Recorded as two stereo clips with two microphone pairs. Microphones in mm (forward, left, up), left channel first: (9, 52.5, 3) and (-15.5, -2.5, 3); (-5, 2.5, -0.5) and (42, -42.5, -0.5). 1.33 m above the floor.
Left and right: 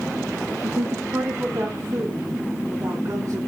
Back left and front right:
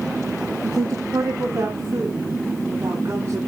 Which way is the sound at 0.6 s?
70° right.